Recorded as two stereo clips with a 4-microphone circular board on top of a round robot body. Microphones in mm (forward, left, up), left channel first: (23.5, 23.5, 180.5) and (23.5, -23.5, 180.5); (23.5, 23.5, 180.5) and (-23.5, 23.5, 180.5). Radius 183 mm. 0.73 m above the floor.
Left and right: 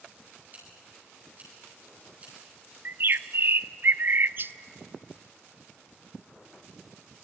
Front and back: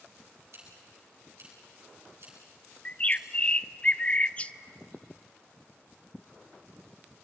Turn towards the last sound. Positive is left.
turn(degrees=-60)